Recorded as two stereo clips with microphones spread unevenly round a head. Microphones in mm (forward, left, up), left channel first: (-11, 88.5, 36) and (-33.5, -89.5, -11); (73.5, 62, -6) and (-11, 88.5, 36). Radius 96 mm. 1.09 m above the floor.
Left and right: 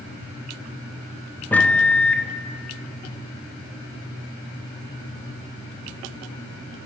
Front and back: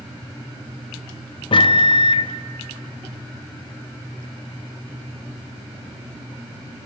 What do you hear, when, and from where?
1.5 s a microwave: straight ahead, 0.6 m